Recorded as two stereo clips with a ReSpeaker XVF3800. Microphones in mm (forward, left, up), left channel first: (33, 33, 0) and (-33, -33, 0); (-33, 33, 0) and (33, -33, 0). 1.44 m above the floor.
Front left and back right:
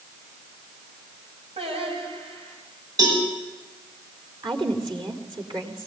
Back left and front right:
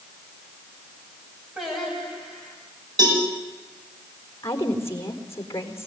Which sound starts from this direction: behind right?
Singing, at 1.6 s.